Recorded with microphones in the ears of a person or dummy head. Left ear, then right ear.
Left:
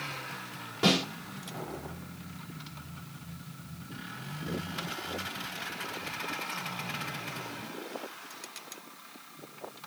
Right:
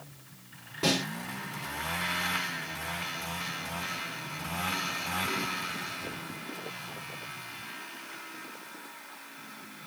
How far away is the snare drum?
About 4.5 m.